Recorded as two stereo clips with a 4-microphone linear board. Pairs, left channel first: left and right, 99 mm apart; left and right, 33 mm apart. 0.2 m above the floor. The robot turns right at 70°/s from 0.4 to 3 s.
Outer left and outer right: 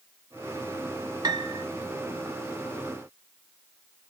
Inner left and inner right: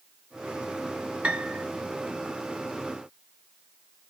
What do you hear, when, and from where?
1.2 s a piano: 45° right (ahead or behind), 0.5 m